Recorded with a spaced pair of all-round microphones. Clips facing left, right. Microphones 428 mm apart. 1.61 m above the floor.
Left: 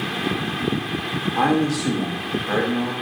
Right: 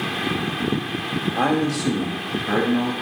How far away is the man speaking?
About 0.8 m.